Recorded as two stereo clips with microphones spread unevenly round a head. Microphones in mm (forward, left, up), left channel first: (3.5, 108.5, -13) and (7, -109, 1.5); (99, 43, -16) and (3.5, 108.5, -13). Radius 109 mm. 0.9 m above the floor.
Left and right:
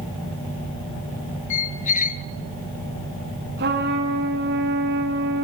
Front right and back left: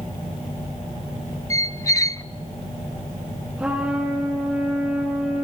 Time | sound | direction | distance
1.5 | a squeak | 30° left | 0.8 m
3.6 | a trumpet | 130° right | 1.7 m